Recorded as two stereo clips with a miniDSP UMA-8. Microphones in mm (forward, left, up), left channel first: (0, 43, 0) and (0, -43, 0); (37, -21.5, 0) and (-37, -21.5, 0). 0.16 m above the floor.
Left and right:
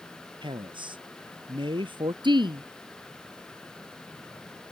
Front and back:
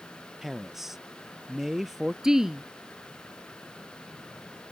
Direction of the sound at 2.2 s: 95° right.